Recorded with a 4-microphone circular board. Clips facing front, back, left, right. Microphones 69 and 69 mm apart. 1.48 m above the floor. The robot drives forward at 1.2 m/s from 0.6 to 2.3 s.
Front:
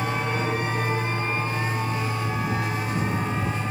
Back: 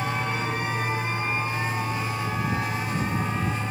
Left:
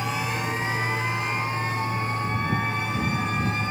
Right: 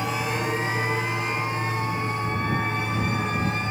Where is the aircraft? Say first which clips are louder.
Front 2 dB, right 1 dB; 45° right; by 3.7 s 50° right.